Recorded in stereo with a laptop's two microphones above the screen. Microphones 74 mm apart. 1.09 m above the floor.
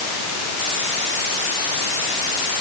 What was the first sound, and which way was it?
Only background noise.